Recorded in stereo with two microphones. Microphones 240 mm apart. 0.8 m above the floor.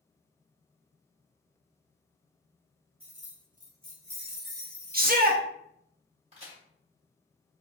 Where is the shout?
40° right (ahead or behind), 0.6 m.